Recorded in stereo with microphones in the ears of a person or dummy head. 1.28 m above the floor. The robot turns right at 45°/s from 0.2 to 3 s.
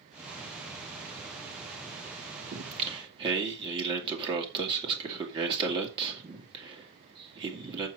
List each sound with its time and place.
2.5 s singing: 45° right (ahead or behind), 2 m; by 7.9 s 25° right (ahead or behind), 2 m